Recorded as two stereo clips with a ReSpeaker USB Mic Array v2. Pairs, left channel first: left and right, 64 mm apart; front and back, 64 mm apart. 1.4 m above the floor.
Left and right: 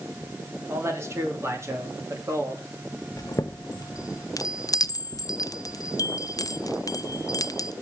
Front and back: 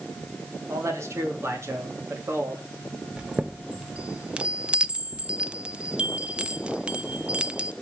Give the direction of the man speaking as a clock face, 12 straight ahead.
5 o'clock.